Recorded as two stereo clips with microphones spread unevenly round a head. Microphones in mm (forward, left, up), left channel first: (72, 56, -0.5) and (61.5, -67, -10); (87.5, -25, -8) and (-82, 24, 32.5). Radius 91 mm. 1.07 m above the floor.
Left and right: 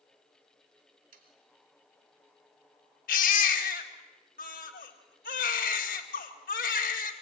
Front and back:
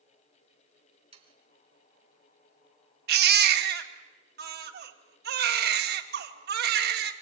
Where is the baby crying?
125° left, 1.9 m.